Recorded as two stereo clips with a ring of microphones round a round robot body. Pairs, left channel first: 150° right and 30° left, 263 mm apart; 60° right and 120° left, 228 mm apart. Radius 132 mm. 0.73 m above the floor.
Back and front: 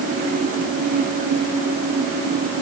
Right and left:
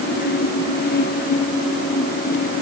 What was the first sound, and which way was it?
Only background noise.